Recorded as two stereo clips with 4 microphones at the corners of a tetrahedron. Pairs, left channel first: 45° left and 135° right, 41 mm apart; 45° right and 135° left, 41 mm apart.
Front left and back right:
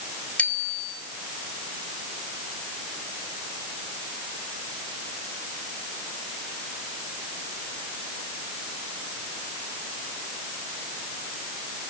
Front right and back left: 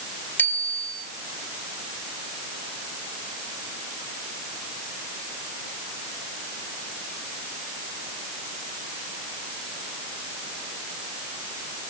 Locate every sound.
0.4 s a bicycle bell: 15° right, 6.5 m